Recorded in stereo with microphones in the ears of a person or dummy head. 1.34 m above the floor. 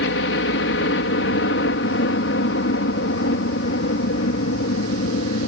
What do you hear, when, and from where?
0.0 s a helicopter: 60° left (ahead or behind)